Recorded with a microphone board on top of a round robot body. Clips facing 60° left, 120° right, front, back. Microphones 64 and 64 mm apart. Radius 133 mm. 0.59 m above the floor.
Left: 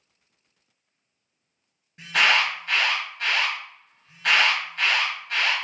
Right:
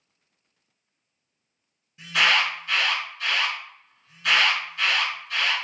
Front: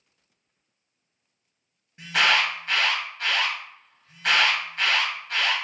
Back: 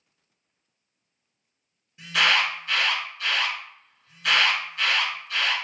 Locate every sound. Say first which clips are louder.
2.0 s an alarm: left 1 dB, front 1 dB; 40° left, 1.8 m